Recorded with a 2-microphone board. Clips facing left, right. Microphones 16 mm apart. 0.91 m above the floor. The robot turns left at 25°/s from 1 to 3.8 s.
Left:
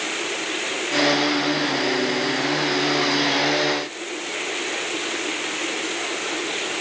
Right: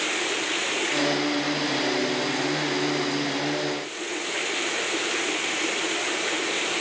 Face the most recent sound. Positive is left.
No sound to turn to.